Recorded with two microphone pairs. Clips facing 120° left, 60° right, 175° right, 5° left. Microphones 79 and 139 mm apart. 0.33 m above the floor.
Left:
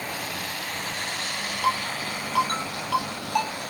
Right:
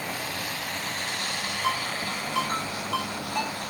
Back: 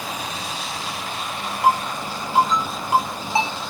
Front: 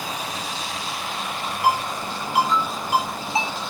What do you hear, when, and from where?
1.6 s a ringtone: 125° left, 6.5 m